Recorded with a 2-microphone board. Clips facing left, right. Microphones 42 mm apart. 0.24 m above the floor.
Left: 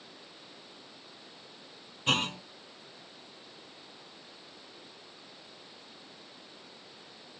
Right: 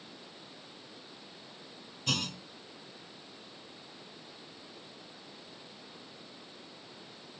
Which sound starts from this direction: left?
A clunk, at 2.1 s.